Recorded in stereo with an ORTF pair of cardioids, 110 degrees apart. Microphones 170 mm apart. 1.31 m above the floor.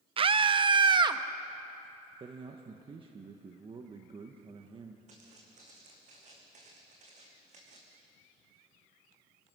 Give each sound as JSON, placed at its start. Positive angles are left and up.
{"t": 0.2, "sound": "a scream", "azimuth_deg": -35, "distance_m": 0.9}
{"t": 2.2, "sound": "a man speaking", "azimuth_deg": -35, "distance_m": 1.5}
{"t": 5.1, "sound": "footsteps", "azimuth_deg": -50, "distance_m": 5.5}